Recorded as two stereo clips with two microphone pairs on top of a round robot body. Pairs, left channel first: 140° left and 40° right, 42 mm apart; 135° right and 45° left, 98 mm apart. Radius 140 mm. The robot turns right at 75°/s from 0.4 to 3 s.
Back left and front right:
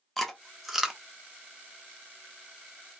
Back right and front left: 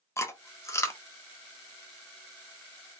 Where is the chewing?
150° right, 1.1 m; by 1.0 s 105° right, 1.1 m.